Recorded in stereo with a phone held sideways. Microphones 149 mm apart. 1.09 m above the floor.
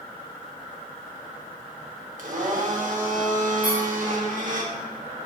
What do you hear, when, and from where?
2.2 s a blender: 60° right (ahead or behind), 1.2 m
3.6 s a squeak: 15° right (ahead or behind), 1.7 m